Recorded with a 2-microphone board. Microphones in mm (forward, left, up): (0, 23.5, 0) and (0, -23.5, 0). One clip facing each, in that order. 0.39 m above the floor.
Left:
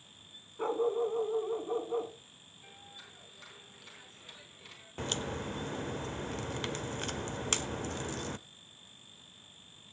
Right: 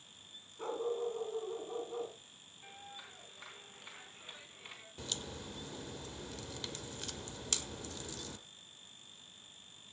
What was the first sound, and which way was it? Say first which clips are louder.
A dog barking: left 6 dB; 30° left (ahead or behind).